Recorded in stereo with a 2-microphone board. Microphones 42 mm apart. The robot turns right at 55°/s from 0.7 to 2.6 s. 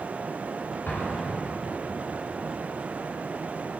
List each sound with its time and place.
0.9 s an explosion: 120° left, 2.5 m; by 1.7 s 170° left, 2.5 m